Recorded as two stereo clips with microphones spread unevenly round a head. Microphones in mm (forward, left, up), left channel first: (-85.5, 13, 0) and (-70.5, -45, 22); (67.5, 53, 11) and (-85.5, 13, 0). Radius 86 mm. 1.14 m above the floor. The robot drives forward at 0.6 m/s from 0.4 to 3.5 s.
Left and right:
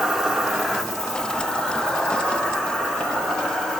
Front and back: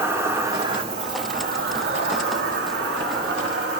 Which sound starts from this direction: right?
An insect, at 0.0 s.